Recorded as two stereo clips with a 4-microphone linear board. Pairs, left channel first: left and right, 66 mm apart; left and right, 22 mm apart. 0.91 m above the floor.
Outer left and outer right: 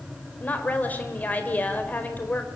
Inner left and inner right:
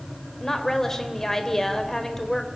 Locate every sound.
0.4 s a woman speaking: 25° left (ahead or behind), 4 m